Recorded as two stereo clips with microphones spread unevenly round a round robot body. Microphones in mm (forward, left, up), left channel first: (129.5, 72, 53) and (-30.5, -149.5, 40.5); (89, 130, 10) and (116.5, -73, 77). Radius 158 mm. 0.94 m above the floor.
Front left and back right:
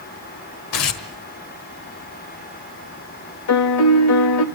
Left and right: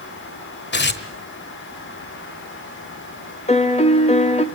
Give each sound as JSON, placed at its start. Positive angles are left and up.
{"t": 0.7, "sound": "tearing paper", "azimuth_deg": 60, "distance_m": 1.7}
{"t": 3.5, "sound": "a piano", "azimuth_deg": 60, "distance_m": 1.4}